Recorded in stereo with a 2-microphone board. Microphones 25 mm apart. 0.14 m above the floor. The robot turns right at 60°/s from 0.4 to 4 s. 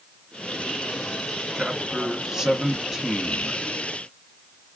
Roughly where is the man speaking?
Centre.